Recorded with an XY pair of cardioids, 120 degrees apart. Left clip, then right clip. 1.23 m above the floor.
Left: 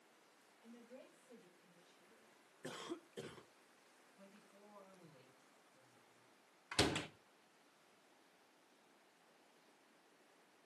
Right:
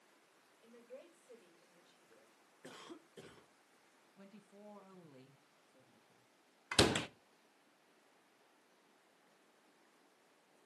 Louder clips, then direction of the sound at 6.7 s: Right 6 dB; 45° right.